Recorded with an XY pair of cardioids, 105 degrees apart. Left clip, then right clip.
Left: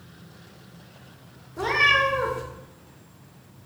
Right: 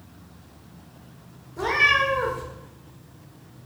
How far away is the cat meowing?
About 1.4 m.